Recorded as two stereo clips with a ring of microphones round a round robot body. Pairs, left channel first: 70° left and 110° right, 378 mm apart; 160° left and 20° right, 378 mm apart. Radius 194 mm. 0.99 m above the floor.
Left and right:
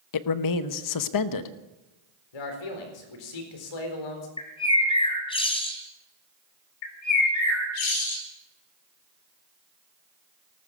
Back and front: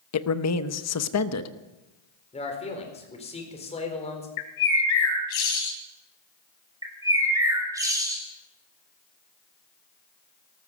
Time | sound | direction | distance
0.1 | a man speaking | 105° left | 0.9 m
2.3 | a man speaking | 85° left | 4 m
4.4 | a bird | 145° left | 2.5 m
6.8 | a bird | 60° left | 3.5 m